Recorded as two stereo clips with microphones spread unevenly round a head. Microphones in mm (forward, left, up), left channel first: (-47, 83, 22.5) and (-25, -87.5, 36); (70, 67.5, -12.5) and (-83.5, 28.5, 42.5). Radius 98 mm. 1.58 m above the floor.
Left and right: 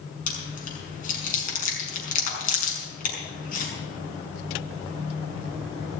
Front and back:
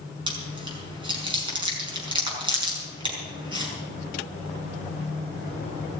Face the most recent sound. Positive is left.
turn(degrees=140)